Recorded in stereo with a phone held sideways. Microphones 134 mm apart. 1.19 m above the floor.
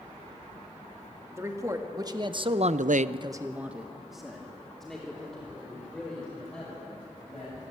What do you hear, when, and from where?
1.3 s a man speaking: 25° right (ahead or behind), 2.5 m; by 7.6 s 10° left (ahead or behind), 6.5 m